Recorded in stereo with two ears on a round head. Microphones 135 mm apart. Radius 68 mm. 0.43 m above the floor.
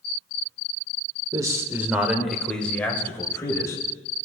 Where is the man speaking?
25° right (ahead or behind), 1.2 m; by 3.8 s 20° left (ahead or behind), 2 m.